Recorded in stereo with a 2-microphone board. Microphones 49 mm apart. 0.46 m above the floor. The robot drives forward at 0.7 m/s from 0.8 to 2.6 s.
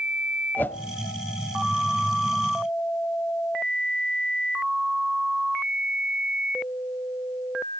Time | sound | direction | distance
0.6 | a whoosh | 40° left (ahead or behind) | 0.7 m